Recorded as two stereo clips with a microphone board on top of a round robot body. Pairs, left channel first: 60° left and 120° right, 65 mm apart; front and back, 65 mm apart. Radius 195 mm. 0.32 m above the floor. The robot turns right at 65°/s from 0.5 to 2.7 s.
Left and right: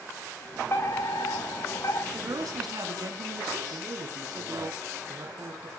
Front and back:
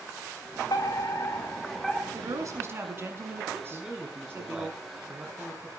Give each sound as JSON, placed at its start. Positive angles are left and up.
{"t": 0.7, "sound": "a fire alarm", "azimuth_deg": 10, "distance_m": 6.0}
{"t": 2.1, "sound": "a woman speaking", "azimuth_deg": -165, "distance_m": 6.0}
{"t": 3.7, "sound": "a man speaking", "azimuth_deg": -105, "distance_m": 5.0}